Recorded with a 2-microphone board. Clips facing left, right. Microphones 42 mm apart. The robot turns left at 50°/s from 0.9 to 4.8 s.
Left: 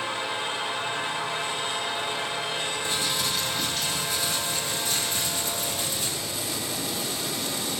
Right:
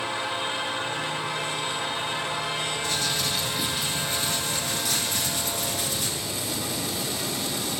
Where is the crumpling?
25° left, 5 m; by 6.1 s 70° right, 5 m.